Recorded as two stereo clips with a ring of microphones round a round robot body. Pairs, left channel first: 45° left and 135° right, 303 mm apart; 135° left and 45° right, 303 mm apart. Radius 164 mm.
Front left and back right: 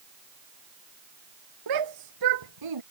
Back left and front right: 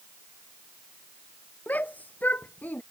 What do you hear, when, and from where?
1.7 s a shout: 140° right